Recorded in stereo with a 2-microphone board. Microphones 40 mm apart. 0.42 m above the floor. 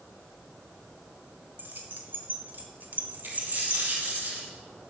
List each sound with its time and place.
1.6 s keys jangling: 55° right (ahead or behind), 1.4 m; by 4.1 s 35° right (ahead or behind), 1.5 m
3.2 s a dropped coin: 55° right (ahead or behind), 6 m